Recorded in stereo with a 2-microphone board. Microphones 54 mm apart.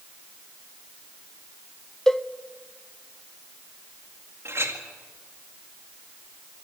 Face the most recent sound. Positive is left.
turn(degrees=-50)  # may be behind; listen again after turning